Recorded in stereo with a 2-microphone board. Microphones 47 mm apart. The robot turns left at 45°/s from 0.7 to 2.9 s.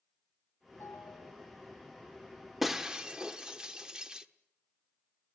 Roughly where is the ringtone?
Left.